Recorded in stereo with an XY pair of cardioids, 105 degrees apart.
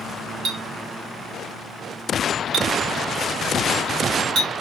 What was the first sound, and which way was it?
A clink, 60° right.